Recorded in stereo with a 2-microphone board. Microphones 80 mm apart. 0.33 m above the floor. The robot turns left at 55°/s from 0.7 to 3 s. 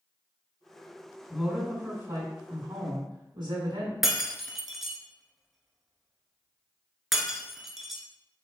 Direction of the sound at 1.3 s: Straight ahead.